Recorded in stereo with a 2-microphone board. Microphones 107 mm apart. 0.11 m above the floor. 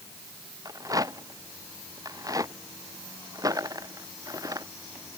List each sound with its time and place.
0.7 s a rattle: 35° right (ahead or behind)